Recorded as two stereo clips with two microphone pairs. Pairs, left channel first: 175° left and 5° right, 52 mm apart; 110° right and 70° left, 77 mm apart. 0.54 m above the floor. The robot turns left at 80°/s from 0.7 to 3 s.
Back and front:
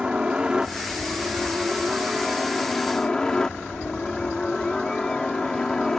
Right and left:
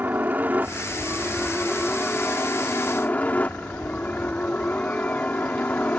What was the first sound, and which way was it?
A helicopter, 45° left.